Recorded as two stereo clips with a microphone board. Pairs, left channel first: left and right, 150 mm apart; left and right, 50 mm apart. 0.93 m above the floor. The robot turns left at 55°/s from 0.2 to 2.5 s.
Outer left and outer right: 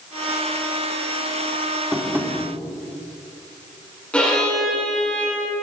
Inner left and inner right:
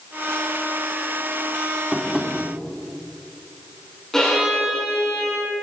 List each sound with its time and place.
1.9 s tapping: centre (ahead or behind), 2 m; by 2.3 s 25° right (ahead or behind), 2 m
4.1 s a violin: 10° left (ahead or behind), 5.5 m